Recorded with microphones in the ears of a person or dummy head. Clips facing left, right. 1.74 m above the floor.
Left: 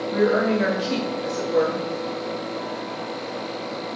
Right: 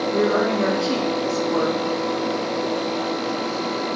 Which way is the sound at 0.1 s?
30° left (ahead or behind).